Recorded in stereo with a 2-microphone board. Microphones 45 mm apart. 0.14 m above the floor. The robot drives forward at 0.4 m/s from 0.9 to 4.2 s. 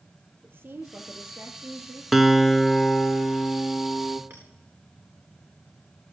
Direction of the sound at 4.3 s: 75° right (ahead or behind).